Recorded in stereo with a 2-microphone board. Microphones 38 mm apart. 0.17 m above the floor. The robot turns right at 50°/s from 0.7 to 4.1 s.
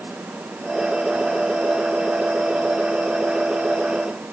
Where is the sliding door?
No sliding door in this recording.